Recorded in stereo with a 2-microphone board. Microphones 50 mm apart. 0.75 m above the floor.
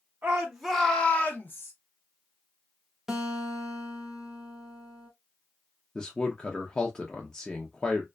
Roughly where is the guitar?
Centre.